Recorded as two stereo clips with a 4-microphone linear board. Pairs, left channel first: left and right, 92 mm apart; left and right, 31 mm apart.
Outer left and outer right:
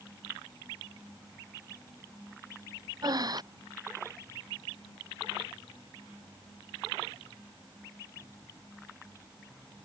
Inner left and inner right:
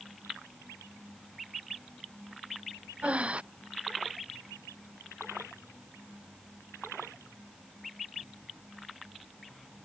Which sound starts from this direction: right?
Breathing, at 3.0 s.